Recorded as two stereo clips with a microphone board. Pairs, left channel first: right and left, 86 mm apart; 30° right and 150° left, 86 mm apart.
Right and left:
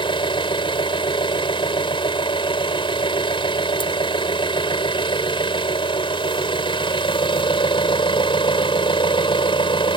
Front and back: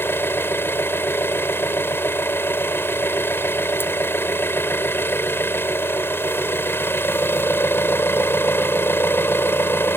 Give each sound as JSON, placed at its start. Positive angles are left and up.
{"t": 0.0, "sound": "an engine running", "azimuth_deg": -90}